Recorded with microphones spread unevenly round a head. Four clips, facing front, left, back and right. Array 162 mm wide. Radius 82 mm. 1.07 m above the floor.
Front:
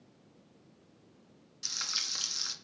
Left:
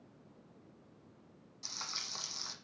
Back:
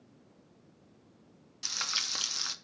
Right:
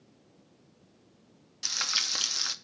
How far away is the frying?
About 0.7 m.